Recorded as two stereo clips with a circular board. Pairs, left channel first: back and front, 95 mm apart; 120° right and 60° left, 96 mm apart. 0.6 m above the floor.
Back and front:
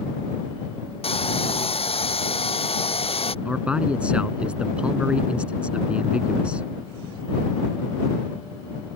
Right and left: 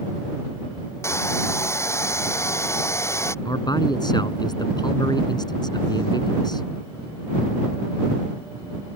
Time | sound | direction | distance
1.0 | a hair dryer | straight behind | ?
3.5 | a man speaking | 80° right | ?